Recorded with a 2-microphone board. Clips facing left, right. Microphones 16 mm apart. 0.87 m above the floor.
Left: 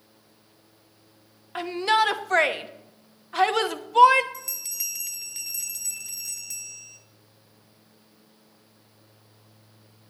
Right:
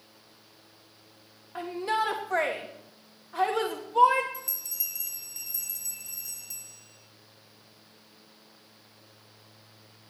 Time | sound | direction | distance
1.6 | a shout | 65° left (ahead or behind) | 0.9 m
4.3 | a bell | 45° left (ahead or behind) | 0.6 m